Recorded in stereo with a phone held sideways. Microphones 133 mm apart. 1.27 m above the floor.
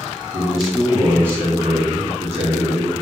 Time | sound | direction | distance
0.3 | a man speaking | 5° left (ahead or behind) | 1.2 m